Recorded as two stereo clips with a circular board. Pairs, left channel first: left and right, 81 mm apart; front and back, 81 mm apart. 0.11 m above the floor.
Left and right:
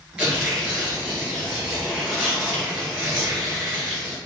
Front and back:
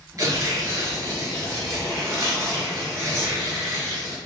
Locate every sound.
0.2 s tearing paper: 165° right, 1.8 m